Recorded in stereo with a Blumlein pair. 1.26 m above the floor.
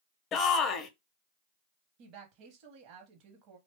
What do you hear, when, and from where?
0.3 s a shout: 25° left, 0.6 m
2.0 s a woman speaking: 40° right, 0.9 m